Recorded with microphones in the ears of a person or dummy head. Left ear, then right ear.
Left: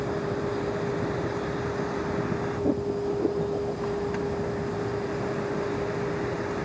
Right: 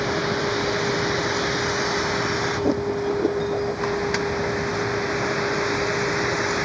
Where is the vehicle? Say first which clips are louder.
Right 6 dB; 55° right (ahead or behind); by 6.7 s 50° right (ahead or behind).